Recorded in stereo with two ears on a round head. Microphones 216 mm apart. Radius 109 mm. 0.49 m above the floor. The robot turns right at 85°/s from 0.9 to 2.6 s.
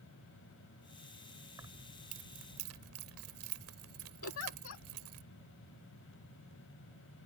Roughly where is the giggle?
Left.